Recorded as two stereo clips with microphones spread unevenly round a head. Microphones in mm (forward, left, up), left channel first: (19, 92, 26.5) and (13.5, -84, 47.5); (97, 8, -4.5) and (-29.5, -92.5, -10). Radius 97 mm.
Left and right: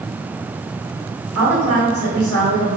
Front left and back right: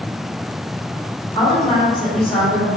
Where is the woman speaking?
40° right, 1.5 m.